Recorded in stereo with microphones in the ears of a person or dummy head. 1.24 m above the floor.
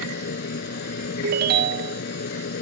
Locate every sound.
0.0 s a machine running: 55° left (ahead or behind)
1.2 s a ringtone: 55° right (ahead or behind)